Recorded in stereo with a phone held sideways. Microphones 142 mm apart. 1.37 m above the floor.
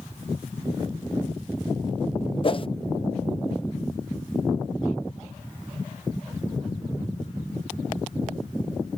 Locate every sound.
2.4 s a whoosh: 40° left (ahead or behind)